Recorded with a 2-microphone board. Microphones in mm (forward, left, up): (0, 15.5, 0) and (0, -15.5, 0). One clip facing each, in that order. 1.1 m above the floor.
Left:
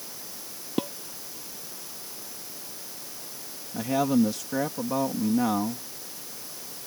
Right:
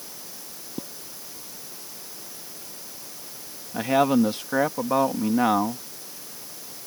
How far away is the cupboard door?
No cupboard door in this recording.